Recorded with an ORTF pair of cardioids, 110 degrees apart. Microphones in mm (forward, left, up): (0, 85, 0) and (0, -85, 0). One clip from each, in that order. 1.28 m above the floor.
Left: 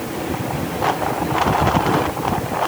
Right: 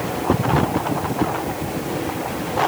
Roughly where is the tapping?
I don't hear tapping.